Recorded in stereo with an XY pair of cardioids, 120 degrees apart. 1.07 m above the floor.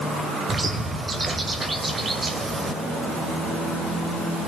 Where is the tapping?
No tapping in this recording.